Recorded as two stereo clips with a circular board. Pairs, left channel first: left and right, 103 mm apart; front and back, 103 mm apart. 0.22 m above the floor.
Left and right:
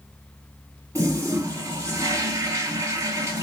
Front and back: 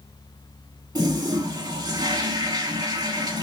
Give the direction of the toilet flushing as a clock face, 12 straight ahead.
5 o'clock.